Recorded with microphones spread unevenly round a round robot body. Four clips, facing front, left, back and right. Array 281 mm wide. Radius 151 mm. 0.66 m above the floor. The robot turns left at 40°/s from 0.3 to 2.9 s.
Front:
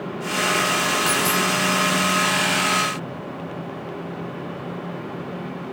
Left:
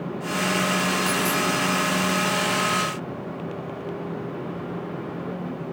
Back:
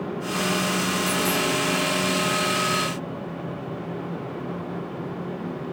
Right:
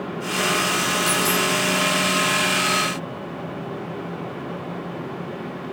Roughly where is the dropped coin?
Ahead.